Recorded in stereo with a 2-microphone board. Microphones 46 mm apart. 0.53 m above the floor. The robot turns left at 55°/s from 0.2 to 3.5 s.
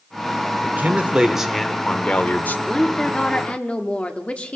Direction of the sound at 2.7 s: 165° left.